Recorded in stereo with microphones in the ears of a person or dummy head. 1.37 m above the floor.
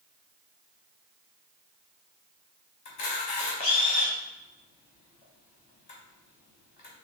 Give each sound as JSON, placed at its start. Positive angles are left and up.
{"t": 2.9, "sound": "a camera shutter", "side_deg": 40, "distance_m": 0.8}